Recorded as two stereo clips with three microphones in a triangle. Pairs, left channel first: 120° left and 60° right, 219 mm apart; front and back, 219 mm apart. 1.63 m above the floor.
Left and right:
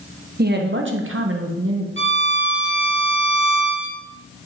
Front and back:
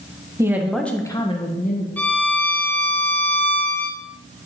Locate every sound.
0.4 s a woman speaking: 105° right, 1.2 m; by 1.9 s 45° right, 1.3 m
2.0 s a violin: 85° right, 0.9 m